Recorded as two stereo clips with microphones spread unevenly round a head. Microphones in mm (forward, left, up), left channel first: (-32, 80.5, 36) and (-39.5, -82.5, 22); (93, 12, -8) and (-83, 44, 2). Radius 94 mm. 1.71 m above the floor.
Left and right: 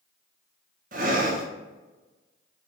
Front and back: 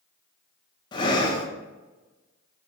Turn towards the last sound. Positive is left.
turn(degrees=-70)